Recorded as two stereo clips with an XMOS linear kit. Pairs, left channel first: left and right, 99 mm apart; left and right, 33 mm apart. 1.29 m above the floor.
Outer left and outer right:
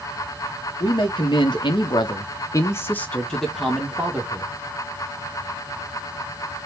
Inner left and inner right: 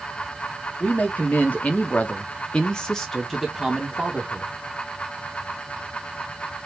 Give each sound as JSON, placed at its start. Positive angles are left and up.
{"t": 0.8, "sound": "a man speaking", "side_deg": 50, "distance_m": 1.1}